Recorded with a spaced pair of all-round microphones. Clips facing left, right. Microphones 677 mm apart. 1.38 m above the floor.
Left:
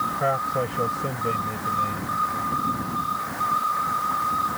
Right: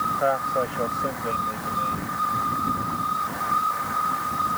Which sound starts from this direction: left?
A man speaking, at 0.2 s.